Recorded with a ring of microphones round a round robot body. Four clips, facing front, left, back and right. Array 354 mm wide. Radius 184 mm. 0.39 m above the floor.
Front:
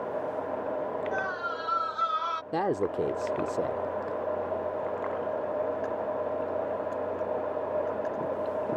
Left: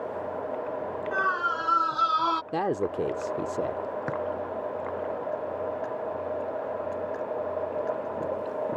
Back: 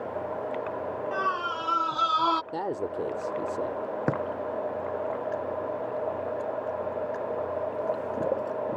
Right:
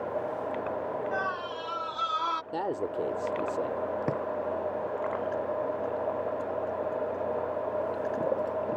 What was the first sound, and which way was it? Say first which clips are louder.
A scream: left 5 dB, back 3 dB; 130° left.